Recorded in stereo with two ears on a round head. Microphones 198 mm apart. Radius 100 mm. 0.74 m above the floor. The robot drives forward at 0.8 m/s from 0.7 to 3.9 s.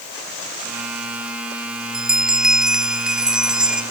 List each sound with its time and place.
1.9 s a bell: 5° right (ahead or behind)